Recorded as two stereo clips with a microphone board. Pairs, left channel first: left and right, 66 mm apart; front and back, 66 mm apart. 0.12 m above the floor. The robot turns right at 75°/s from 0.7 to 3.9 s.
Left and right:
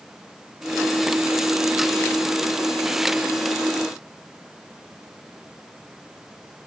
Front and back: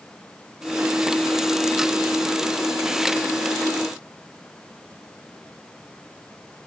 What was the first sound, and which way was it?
Only background noise.